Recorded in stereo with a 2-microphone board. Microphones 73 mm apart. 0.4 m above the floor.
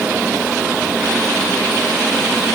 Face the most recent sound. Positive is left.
No sound to turn to.